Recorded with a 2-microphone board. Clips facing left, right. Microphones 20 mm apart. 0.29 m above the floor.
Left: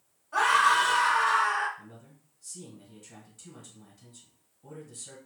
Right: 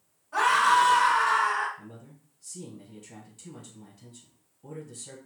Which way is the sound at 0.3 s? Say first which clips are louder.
Right 1 dB; 5° left (ahead or behind).